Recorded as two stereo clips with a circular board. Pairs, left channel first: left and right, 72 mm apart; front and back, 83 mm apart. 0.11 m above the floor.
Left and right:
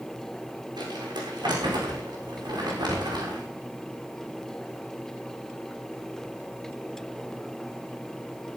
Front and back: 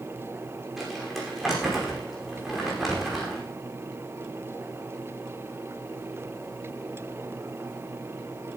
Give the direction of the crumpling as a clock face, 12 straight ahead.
3 o'clock.